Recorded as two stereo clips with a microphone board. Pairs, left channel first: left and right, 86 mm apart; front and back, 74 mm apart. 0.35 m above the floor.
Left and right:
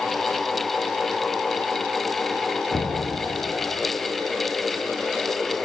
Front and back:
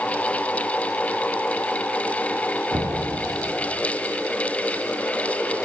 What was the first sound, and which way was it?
Knocking, 150° left.